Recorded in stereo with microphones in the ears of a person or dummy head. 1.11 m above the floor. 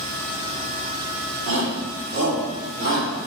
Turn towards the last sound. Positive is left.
turn(degrees=-65)  # may be behind; listen again after turning